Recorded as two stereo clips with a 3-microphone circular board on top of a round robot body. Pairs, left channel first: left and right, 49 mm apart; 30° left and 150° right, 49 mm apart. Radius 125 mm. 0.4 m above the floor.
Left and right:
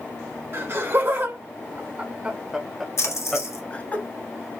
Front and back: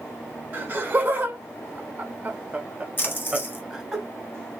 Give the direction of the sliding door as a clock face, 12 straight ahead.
No sliding door in this recording.